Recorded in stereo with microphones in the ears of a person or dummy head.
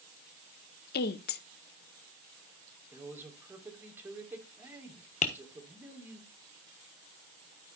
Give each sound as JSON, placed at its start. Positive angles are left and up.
{"t": 0.9, "sound": "a woman speaking", "side_deg": 45, "distance_m": 0.7}
{"t": 2.9, "sound": "a man speaking", "side_deg": -10, "distance_m": 3.0}
{"t": 5.2, "sound": "tapping", "side_deg": 30, "distance_m": 1.0}